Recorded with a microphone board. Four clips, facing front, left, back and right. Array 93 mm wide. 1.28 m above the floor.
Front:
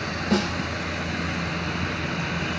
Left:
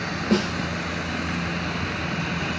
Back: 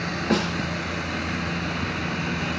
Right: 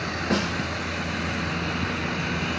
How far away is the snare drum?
About 2 m.